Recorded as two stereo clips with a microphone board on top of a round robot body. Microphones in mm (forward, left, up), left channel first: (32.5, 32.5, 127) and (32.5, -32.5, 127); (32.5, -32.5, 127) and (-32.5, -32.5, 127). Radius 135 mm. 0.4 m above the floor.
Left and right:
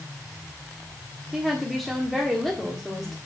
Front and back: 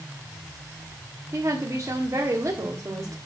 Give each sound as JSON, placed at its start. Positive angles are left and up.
{"t": 1.3, "sound": "a woman speaking", "azimuth_deg": 180, "distance_m": 1.7}